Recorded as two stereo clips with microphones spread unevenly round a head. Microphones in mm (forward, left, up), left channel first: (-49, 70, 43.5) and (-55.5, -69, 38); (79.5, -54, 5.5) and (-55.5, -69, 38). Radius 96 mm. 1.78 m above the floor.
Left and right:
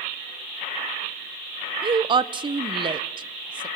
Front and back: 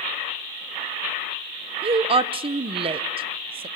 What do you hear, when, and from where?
1.8 s a woman speaking: 145° right, 1.0 m